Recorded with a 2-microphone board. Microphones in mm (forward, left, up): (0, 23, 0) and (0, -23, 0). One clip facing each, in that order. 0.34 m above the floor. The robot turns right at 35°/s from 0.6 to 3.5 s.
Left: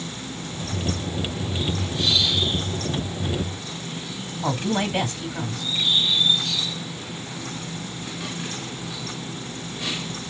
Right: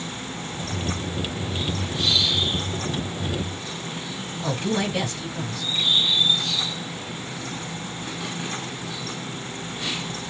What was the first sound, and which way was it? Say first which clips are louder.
A woman speaking: left 1 dB; 45° left (ahead or behind).